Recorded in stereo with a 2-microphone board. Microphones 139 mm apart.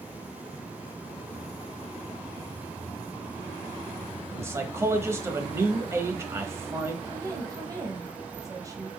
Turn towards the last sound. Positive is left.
turn(degrees=-25)  # may be behind; listen again after turning